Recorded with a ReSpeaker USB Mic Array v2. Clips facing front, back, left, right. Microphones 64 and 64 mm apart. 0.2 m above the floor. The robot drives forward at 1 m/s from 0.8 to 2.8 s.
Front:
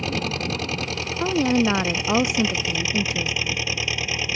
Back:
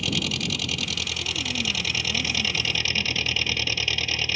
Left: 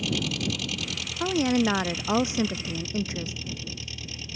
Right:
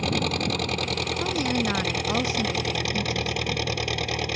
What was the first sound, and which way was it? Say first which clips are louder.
An engine running: front 3 dB, right 4 dB; 55° right.